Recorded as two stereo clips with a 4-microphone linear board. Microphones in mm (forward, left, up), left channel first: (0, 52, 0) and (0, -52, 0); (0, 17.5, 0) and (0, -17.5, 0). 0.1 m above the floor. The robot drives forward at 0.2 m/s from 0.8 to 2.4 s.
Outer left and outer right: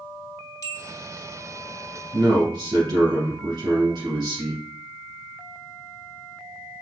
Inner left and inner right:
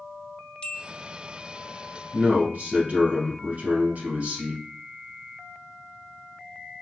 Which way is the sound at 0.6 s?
35° left (ahead or behind).